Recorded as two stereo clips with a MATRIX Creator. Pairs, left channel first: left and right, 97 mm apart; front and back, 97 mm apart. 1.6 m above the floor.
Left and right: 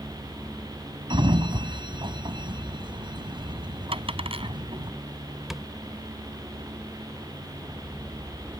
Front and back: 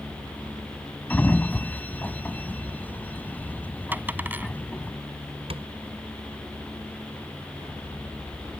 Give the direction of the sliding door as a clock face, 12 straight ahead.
2 o'clock.